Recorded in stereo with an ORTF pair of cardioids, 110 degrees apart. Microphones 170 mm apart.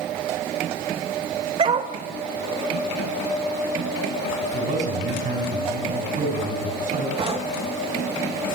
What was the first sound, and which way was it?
A dog barking, 40° right.